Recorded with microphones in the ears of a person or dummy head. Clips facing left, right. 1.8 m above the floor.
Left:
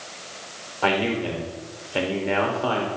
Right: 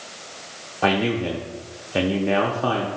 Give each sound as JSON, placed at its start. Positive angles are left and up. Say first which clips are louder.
{"t": 0.8, "sound": "a man speaking", "louder": "right 2 dB", "side_deg": -20, "distance_m": 0.8}